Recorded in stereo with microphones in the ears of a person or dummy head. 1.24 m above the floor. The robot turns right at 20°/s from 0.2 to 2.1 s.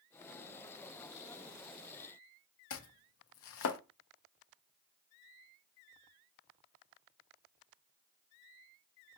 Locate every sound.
2.7 s chopping: 70° left (ahead or behind), 0.6 m